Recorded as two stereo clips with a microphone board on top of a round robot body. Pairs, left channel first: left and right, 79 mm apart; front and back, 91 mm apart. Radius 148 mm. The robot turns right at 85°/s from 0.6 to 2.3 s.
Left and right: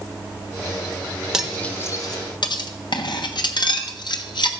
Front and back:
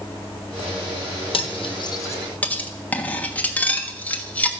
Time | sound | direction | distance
1.3 | cutlery clinking | 10° right | 1.3 m